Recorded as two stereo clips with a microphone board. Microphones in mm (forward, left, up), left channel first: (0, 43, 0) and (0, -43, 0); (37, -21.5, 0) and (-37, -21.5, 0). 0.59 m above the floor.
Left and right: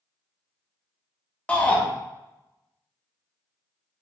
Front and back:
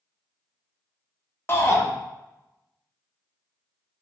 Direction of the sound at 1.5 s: 25° left.